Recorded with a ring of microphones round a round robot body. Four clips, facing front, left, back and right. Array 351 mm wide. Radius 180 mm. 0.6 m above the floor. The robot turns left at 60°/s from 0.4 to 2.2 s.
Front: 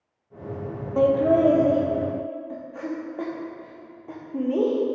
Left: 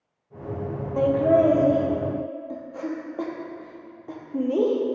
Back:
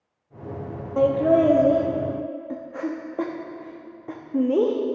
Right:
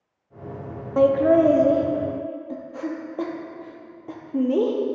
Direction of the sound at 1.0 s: 85° right.